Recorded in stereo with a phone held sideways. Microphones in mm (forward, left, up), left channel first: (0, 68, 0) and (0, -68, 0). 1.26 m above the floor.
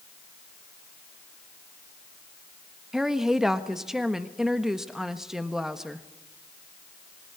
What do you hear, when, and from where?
2.9 s a woman speaking: 5° right (ahead or behind), 1.3 m